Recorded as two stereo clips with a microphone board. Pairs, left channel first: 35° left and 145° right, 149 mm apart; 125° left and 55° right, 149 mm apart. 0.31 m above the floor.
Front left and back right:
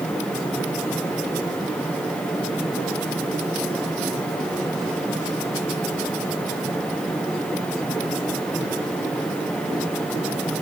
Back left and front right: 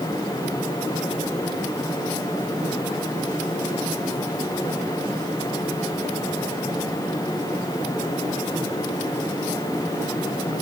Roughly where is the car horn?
I don't hear a car horn.